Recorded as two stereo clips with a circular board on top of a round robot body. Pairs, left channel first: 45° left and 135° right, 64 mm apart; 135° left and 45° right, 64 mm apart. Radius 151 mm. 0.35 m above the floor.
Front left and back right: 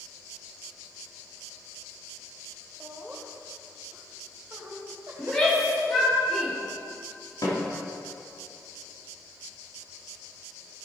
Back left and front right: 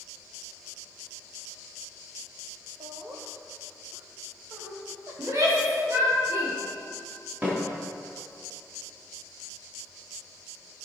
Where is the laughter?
60° right, 2 m; by 5.9 s 95° right, 4 m.